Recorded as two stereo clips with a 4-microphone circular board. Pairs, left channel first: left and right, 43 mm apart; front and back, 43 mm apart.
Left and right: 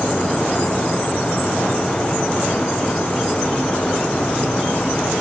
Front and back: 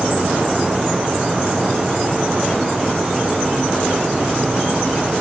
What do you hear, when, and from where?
Only background noise.